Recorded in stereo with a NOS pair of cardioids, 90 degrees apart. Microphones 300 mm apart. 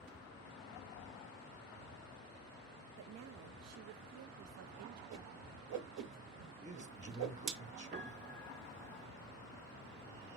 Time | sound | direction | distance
3.0 | a woman speaking | 60° right | 0.6 m
5.1 | a whoosh | 65° right | 1.3 m
6.6 | a man speaking | 25° right | 1.4 m
7.9 | a piano | 35° right | 1.0 m